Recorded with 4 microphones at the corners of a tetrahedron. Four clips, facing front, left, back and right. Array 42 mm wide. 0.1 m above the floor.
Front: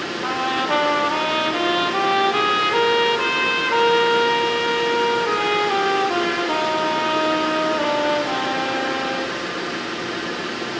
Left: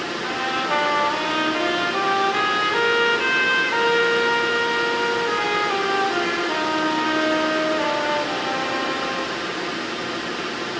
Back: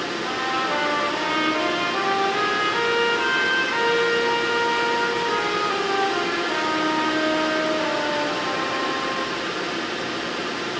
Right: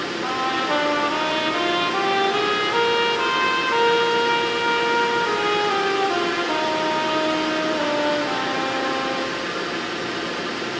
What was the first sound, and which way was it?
A trumpet, 30° right.